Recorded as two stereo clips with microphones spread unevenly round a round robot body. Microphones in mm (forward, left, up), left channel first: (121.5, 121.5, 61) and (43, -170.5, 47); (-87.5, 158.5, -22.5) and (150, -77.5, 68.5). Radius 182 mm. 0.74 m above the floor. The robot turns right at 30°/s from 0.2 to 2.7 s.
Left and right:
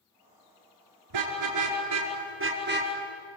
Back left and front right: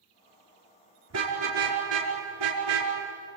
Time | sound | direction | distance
1.1 | a car horn | 95° right | 5.5 m